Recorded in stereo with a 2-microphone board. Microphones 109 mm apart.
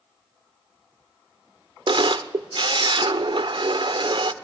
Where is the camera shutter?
50° right (ahead or behind), 0.6 m.